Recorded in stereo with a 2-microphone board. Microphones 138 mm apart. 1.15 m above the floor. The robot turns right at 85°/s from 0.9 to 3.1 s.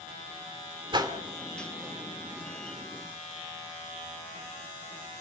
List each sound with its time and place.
0.9 s a whoosh: 40° right (ahead or behind), 2 m; by 1.1 s 20° right (ahead or behind), 2 m